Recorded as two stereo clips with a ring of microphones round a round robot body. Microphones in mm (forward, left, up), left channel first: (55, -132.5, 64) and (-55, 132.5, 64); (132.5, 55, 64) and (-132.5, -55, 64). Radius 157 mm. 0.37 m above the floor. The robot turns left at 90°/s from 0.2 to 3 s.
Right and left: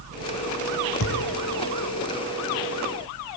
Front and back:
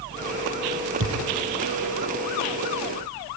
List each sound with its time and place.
1.0 s a thud: 110° right, 6 m; by 1.2 s 130° right, 6 m